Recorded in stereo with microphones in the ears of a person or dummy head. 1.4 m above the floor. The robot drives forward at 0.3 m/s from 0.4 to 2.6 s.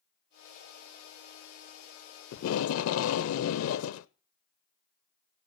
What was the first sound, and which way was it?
Tape being pulled, 80° left.